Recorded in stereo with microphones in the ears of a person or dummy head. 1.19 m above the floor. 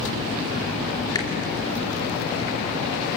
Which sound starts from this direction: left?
A finger snap, at 1.1 s.